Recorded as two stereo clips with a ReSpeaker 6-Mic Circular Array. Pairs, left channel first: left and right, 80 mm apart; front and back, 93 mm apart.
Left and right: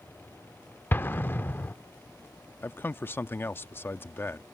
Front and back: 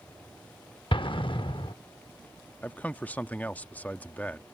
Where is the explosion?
25° left.